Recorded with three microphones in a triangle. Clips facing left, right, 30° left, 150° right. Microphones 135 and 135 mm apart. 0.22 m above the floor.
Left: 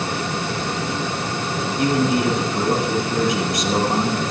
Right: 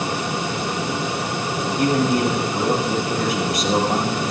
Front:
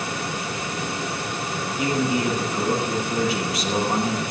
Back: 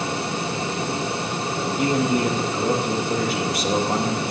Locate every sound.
1.8 s a man speaking: 105° right, 6 m